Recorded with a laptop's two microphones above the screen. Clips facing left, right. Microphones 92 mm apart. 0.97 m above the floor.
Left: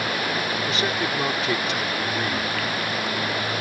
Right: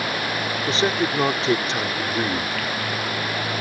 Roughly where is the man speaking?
Right.